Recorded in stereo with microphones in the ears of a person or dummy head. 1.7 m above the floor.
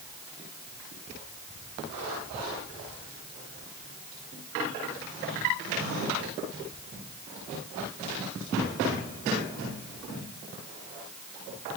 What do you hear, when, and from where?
Only background noise.